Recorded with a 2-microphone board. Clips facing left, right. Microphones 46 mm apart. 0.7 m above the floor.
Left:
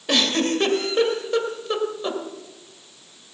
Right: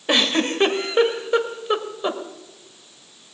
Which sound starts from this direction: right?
A giggle, at 0.1 s.